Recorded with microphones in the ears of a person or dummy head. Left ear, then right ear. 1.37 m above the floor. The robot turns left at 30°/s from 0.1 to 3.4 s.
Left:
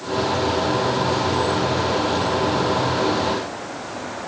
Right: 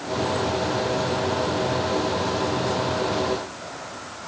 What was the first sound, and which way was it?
Only background noise.